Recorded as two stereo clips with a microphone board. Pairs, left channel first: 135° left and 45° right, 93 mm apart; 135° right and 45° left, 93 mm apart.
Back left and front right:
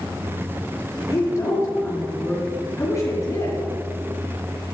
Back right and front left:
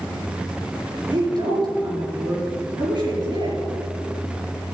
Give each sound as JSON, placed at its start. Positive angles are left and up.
{"t": 1.1, "sound": "a woman speaking", "azimuth_deg": 80, "distance_m": 4.5}